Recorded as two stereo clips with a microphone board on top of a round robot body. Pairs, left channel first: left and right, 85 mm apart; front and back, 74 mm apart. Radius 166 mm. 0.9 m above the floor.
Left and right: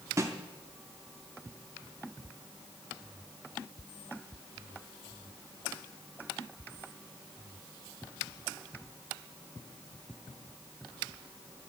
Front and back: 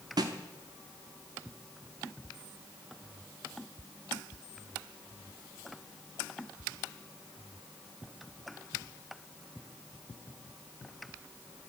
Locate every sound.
0.2 s a snare drum: 150° right, 0.7 m